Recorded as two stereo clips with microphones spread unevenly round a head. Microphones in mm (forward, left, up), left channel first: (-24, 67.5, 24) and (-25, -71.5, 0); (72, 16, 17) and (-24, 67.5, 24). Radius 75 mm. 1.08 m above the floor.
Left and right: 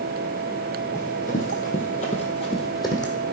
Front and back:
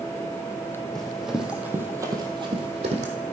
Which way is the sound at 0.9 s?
55° left.